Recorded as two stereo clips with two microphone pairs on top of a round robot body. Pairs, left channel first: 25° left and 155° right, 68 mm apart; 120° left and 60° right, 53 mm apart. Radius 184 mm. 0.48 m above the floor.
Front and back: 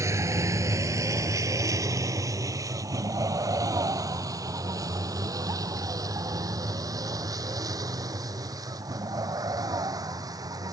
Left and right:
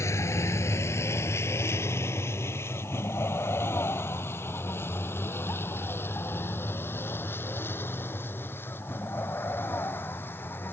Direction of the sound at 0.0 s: 155° left.